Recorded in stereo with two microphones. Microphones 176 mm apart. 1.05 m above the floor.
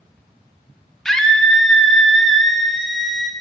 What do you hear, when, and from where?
1.1 s a scream: 5° left (ahead or behind), 0.8 m